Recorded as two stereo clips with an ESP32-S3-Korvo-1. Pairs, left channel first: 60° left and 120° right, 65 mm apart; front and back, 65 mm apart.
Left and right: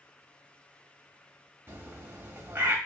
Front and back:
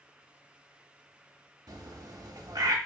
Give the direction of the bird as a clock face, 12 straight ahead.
6 o'clock.